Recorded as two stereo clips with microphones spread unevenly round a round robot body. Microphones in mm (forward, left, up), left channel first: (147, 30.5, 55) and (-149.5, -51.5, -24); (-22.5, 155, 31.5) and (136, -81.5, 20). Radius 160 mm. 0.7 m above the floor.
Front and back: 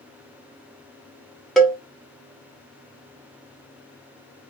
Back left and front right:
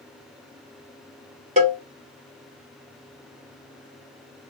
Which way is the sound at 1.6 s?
95° right.